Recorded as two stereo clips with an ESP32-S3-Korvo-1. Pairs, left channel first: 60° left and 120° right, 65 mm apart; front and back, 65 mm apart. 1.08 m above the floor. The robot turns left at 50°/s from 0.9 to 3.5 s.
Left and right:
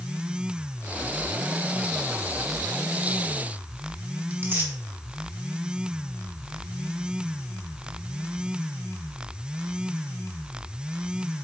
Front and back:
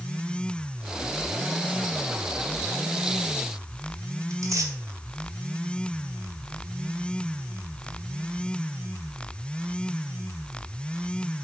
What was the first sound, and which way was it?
Tearing paper, 170° right.